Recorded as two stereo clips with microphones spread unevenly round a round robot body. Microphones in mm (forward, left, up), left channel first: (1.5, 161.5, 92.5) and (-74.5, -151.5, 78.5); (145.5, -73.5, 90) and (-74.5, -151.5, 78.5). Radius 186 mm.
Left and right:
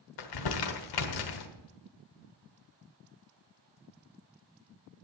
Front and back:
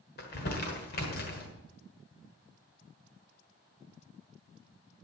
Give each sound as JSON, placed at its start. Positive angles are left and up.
{"t": 0.2, "sound": "crumpling", "azimuth_deg": 75, "distance_m": 1.2}